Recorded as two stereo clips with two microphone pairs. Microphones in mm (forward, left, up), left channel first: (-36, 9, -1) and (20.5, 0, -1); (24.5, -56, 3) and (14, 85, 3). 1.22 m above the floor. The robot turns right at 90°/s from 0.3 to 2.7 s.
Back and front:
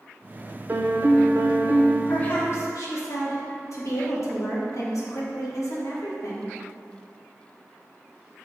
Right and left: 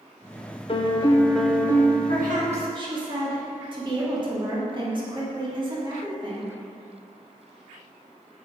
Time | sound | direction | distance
0.7 | a piano | 60° right | 0.5 m
2.1 | a woman speaking | 90° left | 1.5 m